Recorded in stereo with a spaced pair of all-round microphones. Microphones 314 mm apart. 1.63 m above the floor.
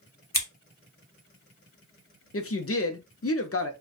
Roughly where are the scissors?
Left.